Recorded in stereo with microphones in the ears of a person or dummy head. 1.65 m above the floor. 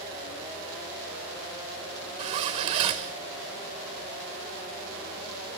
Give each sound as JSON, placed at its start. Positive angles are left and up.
{"t": 2.2, "sound": "a zipper", "side_deg": -30, "distance_m": 1.0}